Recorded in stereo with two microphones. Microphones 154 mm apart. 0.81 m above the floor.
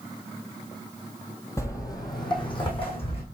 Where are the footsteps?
20° left (ahead or behind), 1.0 m; by 3.2 s 40° left (ahead or behind), 1.9 m.